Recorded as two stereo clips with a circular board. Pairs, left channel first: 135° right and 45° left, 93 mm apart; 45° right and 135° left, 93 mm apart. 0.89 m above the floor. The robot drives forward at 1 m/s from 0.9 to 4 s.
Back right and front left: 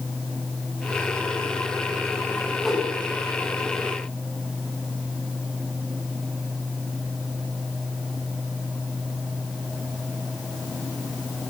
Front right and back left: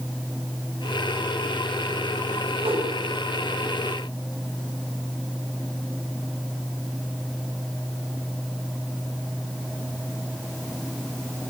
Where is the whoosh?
135° left, 7.5 m.